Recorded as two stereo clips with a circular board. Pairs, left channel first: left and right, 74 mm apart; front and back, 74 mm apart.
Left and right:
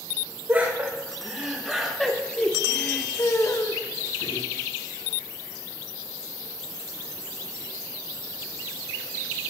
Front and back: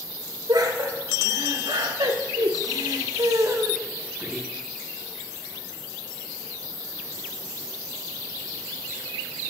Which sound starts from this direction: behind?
Laughter, at 0.5 s.